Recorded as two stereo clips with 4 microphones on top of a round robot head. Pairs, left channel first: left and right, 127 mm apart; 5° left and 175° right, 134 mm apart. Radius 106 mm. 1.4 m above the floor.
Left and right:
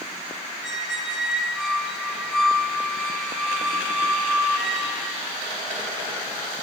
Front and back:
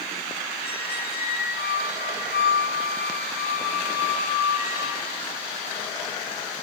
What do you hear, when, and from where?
0.6 s a squeak: 5° right, 6.5 m